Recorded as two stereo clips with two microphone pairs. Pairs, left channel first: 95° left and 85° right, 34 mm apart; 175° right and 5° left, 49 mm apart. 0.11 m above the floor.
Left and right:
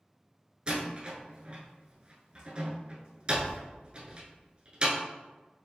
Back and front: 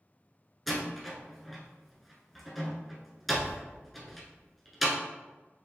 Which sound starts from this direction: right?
A door slam, at 0.7 s.